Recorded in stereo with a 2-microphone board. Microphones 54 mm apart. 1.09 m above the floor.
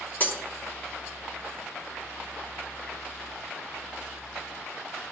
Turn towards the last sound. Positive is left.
turn(degrees=40)  # may be behind; listen again after turning